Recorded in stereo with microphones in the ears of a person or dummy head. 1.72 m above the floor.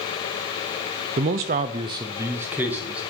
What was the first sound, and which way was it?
A man speaking, 30° right (ahead or behind).